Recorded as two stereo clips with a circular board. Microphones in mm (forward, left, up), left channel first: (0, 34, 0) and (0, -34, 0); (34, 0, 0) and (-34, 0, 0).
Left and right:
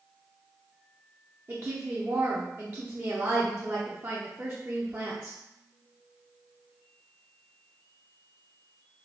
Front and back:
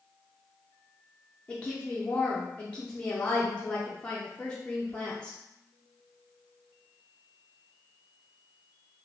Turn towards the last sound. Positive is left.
turn(degrees=-65)